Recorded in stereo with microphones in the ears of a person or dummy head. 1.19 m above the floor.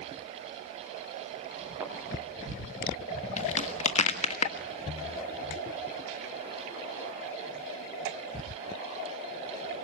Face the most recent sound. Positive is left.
turn(degrees=35)  # may be behind; listen again after turning